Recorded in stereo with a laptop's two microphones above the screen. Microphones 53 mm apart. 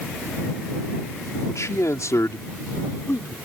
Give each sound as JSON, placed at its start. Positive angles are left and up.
{"t": 1.5, "sound": "a man speaking", "side_deg": 75}